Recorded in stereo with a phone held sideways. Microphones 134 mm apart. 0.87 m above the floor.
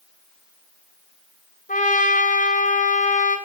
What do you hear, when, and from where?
1.7 s a trumpet: 80° left, 4 m